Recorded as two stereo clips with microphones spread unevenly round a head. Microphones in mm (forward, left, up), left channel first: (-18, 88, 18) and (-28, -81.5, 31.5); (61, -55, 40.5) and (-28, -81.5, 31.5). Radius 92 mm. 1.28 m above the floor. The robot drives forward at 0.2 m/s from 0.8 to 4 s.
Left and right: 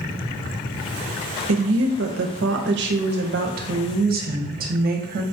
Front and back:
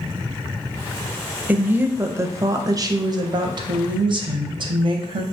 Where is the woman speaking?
90° right, 0.6 m; by 5.2 s 130° right, 0.8 m.